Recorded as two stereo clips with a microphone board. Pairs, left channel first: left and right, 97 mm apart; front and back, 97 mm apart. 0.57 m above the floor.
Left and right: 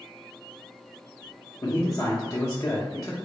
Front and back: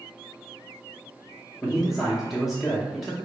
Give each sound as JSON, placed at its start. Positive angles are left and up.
{"t": 1.6, "sound": "a man speaking", "azimuth_deg": 90, "distance_m": 0.7}